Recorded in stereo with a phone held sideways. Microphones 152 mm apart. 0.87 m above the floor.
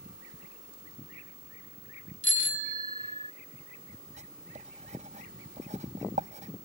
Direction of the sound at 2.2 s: 55° left (ahead or behind).